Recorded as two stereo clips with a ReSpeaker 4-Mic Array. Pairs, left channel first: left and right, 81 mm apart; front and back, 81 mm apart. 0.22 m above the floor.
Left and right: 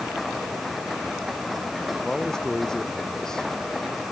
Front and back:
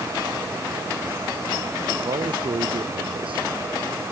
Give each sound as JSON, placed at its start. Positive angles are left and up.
{"t": 2.0, "sound": "a man speaking", "azimuth_deg": 175}